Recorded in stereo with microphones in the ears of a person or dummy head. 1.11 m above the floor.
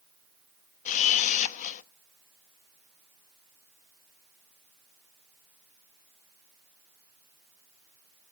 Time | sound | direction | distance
0.8 | a camera shutter | 40° left (ahead or behind) | 0.9 m